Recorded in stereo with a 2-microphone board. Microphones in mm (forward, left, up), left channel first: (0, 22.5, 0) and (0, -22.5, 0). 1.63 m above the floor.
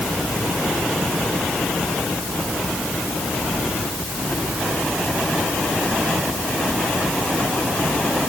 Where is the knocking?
No knocking in this recording.